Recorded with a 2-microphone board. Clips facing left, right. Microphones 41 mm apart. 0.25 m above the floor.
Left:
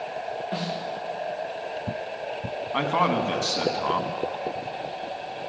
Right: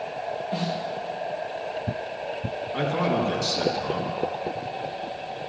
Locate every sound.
0.5 s a snare drum: 40° left (ahead or behind), 6.5 m
2.7 s a man speaking: 50° left (ahead or behind), 1.7 m